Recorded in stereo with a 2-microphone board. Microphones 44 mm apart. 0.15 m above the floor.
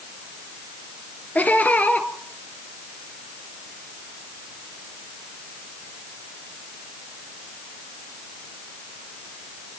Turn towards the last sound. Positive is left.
turn(degrees=35)  # may be behind; listen again after turning